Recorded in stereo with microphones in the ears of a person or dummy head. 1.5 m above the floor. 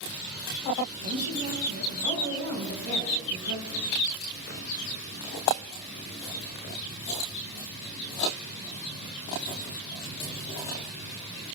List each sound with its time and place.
1.0 s a woman speaking: 90° right, 5 m